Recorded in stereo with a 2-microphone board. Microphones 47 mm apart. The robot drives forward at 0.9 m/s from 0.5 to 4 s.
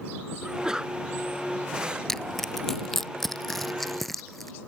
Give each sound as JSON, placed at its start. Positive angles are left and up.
{"t": 0.4, "sound": "a sneeze", "side_deg": -15}
{"t": 2.1, "sound": "crushing", "side_deg": 5}